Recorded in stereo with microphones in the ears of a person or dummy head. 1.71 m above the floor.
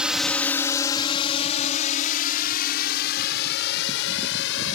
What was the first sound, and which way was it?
A drone, 5° right (ahead or behind).